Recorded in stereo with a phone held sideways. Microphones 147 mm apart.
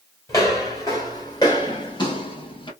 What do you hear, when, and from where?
0.3 s footsteps: 20° left (ahead or behind), 1.5 m; by 2.7 s 35° left (ahead or behind), 1.0 m